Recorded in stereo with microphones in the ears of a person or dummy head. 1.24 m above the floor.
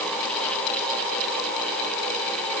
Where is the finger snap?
No finger snap in this recording.